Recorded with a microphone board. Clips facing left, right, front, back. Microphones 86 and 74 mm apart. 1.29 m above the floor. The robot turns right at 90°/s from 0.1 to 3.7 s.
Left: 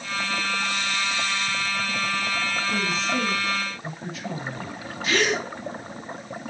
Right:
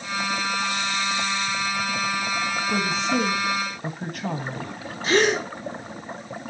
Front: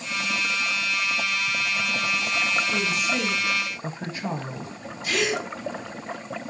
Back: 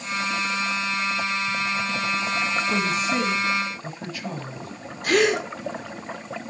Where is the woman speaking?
150° right, 1.6 m; by 4.7 s 60° right, 1.6 m.